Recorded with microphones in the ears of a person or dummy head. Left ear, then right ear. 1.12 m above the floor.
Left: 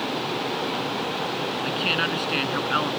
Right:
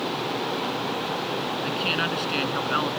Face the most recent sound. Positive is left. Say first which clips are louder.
# left 2 dB
turn(degrees=10)  # may be behind; listen again after turning